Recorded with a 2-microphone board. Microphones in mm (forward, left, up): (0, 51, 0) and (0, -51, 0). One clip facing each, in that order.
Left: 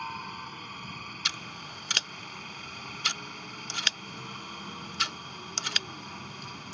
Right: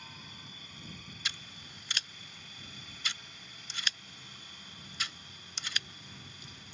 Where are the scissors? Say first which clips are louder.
Left 5 dB; 70° left (ahead or behind).